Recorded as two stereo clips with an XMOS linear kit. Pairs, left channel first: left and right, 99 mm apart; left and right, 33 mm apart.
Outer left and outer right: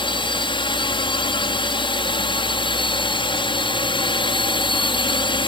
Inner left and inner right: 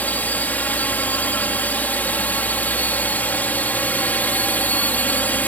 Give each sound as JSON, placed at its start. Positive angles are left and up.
{"t": 0.0, "sound": "a drone", "side_deg": 55}